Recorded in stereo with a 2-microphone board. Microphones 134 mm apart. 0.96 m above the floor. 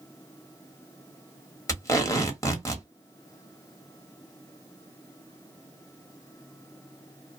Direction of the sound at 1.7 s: 25° left (ahead or behind).